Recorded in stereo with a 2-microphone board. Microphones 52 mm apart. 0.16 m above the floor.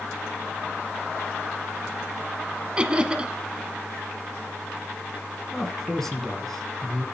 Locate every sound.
2.8 s laughter: 20° right (ahead or behind), 1.2 m
5.5 s a man speaking: 5° left (ahead or behind), 1.9 m